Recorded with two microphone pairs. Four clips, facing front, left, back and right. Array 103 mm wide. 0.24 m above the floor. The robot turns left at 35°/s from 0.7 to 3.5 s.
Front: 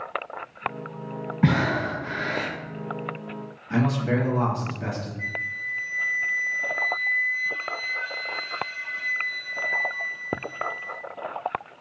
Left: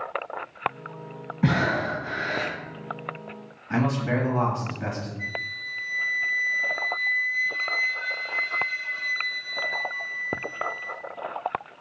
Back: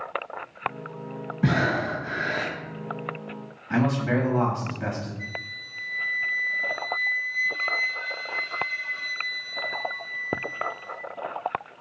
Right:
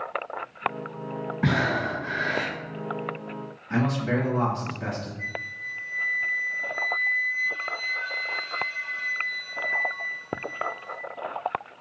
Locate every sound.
1.4 s breathing: 5° right, 1.7 m; by 2.5 s 40° right, 1.7 m
3.7 s a man speaking: 155° left, 1.2 m
5.2 s a flute: 10° right, 0.6 m